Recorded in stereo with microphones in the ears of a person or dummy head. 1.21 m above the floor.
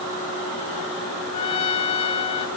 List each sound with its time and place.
1.3 s a trumpet: 30° left (ahead or behind), 1.9 m